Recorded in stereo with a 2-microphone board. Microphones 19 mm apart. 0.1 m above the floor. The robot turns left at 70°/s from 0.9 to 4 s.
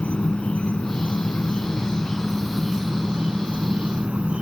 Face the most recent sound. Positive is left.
turn(degrees=-100)